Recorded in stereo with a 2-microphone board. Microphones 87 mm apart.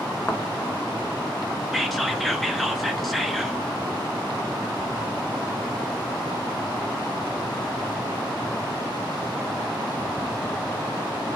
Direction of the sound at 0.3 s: 30° left (ahead or behind).